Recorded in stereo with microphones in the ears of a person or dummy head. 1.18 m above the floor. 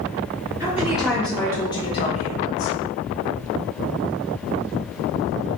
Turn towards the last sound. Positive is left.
turn(degrees=55)  # may be behind; listen again after turning